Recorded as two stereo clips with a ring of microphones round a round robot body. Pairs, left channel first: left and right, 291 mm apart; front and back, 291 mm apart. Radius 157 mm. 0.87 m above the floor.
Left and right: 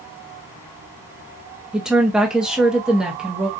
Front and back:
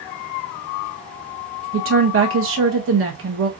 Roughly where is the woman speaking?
Behind.